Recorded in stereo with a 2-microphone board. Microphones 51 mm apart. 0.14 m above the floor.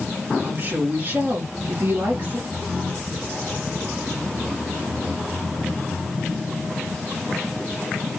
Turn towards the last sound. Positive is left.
turn(degrees=-40)  # may be behind; listen again after turning